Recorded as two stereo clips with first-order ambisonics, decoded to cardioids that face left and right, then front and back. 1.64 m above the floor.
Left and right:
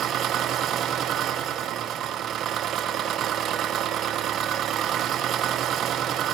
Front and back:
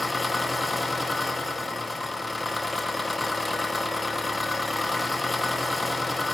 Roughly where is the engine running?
Right.